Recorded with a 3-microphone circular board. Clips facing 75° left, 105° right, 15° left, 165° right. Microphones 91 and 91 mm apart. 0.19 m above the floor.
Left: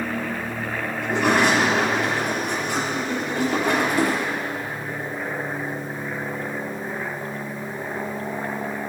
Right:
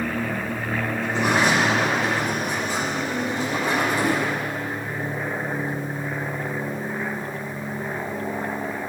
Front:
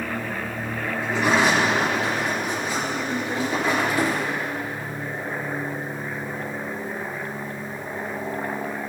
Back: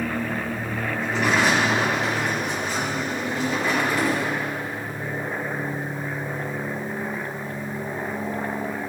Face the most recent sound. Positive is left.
turn(degrees=90)